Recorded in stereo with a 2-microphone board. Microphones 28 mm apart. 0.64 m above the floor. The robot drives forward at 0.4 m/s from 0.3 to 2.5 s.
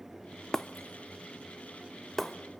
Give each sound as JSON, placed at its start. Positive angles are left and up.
{"t": 0.5, "sound": "breaking glass", "side_deg": 15, "distance_m": 0.6}